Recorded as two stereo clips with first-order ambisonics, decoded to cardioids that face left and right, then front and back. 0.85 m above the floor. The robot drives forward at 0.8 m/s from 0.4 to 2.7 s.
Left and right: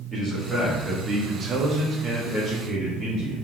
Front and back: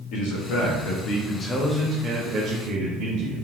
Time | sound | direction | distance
0.1 | a man speaking | 15° right | 1.2 m